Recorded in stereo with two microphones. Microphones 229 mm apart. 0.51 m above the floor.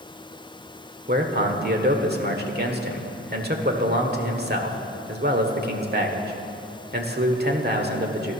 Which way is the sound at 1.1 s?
45° right (ahead or behind).